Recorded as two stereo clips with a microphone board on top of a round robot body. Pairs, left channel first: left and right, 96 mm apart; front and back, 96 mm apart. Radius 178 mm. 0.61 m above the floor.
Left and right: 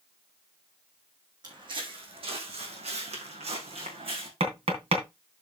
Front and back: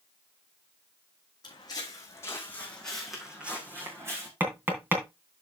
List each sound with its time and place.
1.4 s footsteps: 45° right, 3 m; by 4.3 s 120° right, 3.5 m
4.4 s tapping: 110° right, 3 m